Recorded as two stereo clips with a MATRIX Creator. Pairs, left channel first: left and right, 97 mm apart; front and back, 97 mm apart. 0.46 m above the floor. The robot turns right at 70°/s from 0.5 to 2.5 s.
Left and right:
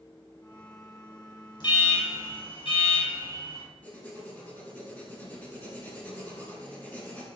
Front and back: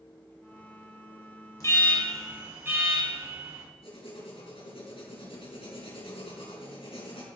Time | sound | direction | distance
1.6 | an alarm | 55° left | 3.5 m
3.8 | writing | 15° left | 3.5 m